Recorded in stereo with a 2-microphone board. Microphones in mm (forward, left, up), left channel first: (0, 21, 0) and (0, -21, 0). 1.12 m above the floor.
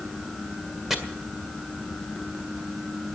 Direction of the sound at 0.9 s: 5° right (ahead or behind).